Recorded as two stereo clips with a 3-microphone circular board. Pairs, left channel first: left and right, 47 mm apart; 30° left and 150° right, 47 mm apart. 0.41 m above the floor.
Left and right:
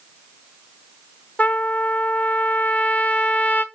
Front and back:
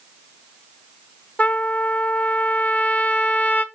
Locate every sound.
1.4 s a trumpet: 65° left, 0.7 m